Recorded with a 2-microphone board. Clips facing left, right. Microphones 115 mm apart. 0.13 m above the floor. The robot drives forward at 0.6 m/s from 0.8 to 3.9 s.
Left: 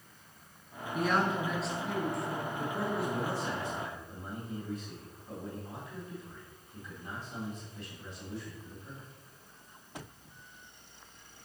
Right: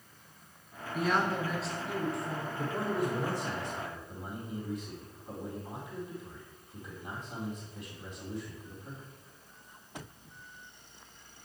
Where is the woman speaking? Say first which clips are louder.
Even; centre (ahead or behind), 1.4 m.